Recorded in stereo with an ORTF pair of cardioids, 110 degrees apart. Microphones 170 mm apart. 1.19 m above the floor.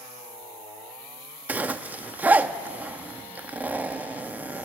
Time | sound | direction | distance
1.5 | a zipper | 10° right | 1.1 m